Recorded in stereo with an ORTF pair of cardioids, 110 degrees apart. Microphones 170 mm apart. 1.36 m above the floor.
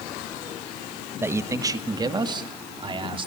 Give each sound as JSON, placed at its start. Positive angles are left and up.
{"t": 1.2, "sound": "a man speaking", "azimuth_deg": -15, "distance_m": 1.3}